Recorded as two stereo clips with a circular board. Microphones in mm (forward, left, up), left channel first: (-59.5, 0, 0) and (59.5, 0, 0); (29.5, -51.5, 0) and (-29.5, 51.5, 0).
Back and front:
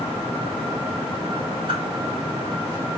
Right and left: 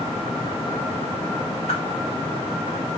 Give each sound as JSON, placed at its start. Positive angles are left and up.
{"t": 1.7, "sound": "a whoosh", "azimuth_deg": -40, "distance_m": 3.5}